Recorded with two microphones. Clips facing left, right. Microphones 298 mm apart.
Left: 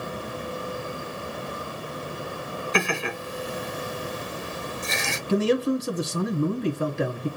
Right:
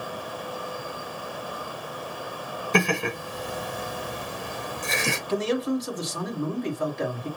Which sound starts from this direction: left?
A man speaking, at 5.3 s.